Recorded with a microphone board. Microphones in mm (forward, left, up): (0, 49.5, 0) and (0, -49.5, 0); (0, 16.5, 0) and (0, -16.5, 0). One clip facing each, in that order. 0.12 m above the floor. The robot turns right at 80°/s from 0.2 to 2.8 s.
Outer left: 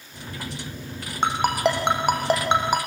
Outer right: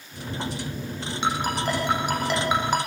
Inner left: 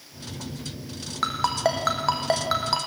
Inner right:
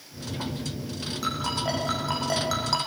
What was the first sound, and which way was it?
A ringtone, 45° left (ahead or behind).